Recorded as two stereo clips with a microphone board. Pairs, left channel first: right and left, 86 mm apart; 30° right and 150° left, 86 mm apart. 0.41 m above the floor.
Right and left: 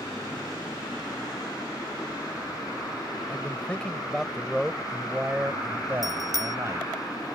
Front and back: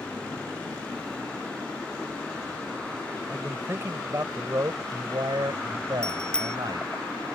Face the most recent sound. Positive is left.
turn(degrees=50)